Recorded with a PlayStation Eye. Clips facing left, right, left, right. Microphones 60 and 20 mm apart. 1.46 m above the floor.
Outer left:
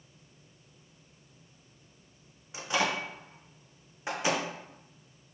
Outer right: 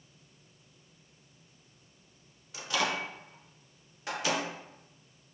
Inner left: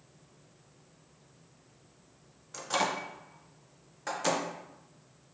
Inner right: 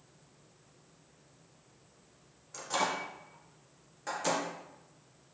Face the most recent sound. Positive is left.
turn(degrees=25)  # may be behind; listen again after turning